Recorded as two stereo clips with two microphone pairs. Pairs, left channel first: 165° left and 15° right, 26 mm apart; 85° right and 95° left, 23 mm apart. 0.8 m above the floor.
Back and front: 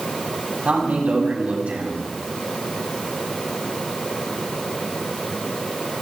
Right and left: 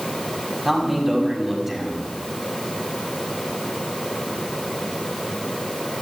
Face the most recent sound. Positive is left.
turn(degrees=20)